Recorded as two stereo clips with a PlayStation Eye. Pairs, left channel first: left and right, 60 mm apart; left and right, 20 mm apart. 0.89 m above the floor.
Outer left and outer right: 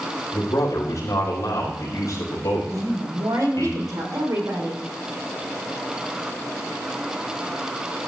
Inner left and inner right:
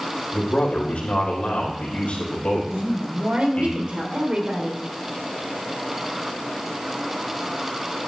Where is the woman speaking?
75° right (ahead or behind), 3 m.